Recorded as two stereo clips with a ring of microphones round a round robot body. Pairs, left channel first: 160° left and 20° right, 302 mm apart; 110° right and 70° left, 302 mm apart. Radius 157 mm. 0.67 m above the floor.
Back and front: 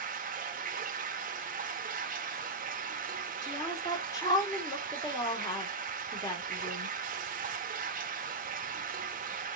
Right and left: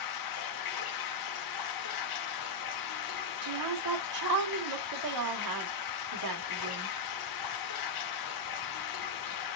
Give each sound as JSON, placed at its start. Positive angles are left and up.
{"t": 0.0, "sound": "running water", "azimuth_deg": -90, "distance_m": 0.9}
{"t": 3.4, "sound": "a woman speaking", "azimuth_deg": 80, "distance_m": 2.5}